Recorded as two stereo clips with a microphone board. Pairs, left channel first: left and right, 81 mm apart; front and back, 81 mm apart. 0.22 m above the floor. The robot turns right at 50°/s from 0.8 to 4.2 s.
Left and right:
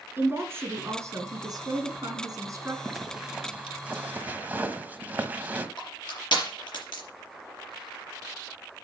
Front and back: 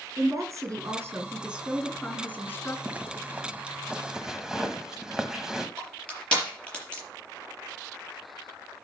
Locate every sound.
0.2 s a woman speaking: 140° right, 2.5 m; by 2.8 s 40° right, 2.5 m
2.9 s a zipper: 175° right, 1.0 m; by 5.7 s 110° right, 1.0 m
5.8 s crushing: 75° left, 5.5 m